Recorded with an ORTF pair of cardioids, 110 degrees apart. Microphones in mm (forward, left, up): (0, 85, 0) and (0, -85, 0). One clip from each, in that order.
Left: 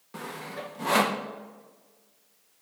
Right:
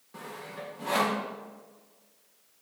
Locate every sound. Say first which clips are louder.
0.1 s sawing: left 3 dB; 40° left, 1.7 m